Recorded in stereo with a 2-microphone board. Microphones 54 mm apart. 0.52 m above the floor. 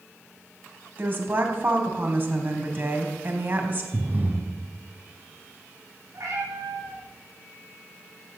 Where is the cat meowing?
65° right (ahead or behind), 6 m.